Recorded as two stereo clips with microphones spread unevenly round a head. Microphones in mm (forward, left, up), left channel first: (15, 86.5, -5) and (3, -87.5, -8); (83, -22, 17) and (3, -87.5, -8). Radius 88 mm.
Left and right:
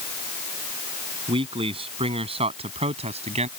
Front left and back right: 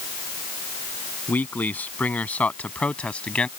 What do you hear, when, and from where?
1.3 s a man speaking: 35° right; by 3.5 s 40° right